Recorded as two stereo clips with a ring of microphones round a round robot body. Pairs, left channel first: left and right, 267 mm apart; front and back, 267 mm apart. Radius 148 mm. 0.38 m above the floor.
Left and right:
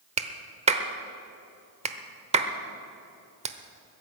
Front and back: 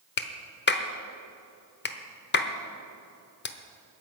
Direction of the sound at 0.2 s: 30° right.